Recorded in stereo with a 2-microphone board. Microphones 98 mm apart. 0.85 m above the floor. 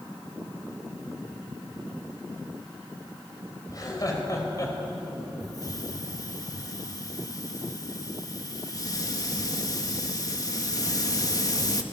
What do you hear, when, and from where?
3.7 s laughter: 40° left (ahead or behind), 5 m; by 4.8 s 35° left (ahead or behind), 4.5 m
5.4 s a hiss: 40° left (ahead or behind), 1.3 m